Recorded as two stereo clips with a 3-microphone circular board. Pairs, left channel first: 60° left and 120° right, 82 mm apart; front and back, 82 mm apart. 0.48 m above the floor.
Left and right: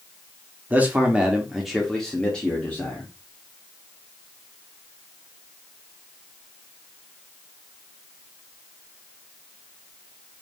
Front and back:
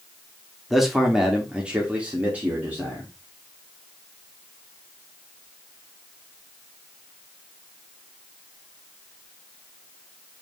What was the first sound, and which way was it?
A man speaking, 100° right.